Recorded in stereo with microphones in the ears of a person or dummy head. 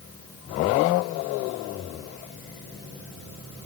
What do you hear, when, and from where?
Only background noise.